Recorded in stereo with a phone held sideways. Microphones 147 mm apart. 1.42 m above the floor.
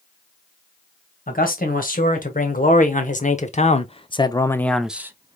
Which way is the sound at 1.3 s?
75° left (ahead or behind).